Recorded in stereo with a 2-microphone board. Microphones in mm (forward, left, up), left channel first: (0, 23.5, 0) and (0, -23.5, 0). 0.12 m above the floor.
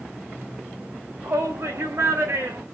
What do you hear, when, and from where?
1.2 s a shout: 65° right (ahead or behind), 8.5 m; by 2.6 s 60° right (ahead or behind), 8 m